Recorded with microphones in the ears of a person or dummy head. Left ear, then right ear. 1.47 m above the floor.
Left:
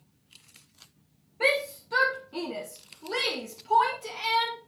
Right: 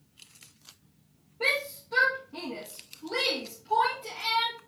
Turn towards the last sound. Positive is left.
turn(degrees=70)  # may be behind; listen again after turning